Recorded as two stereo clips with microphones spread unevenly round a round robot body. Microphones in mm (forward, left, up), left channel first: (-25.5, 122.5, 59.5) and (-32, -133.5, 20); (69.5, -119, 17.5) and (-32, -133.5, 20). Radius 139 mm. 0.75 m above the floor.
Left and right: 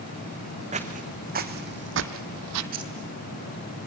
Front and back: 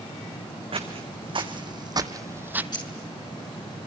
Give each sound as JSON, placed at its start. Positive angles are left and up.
{"t": 0.7, "sound": "footsteps", "azimuth_deg": -155, "distance_m": 2.5}
{"t": 2.7, "sound": "keys jangling", "azimuth_deg": -35, "distance_m": 6.5}